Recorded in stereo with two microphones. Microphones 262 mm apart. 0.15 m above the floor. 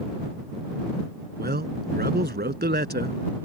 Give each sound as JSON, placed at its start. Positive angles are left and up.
{"t": 1.4, "sound": "a man speaking", "side_deg": -40}